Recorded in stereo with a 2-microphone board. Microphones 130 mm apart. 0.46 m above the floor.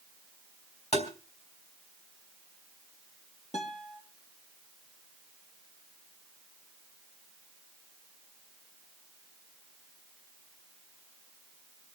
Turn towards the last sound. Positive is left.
turn(degrees=65)  # may be behind; listen again after turning